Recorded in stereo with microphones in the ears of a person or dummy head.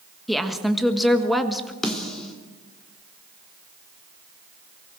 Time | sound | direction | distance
0.3 | a woman speaking | 10° left (ahead or behind) | 1.6 m
1.8 | a snare drum | 10° left (ahead or behind) | 3 m